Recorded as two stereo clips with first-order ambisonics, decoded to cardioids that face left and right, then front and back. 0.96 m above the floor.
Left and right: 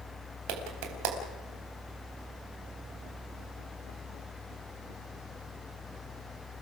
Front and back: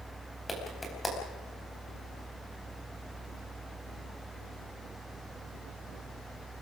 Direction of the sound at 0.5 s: 85° right.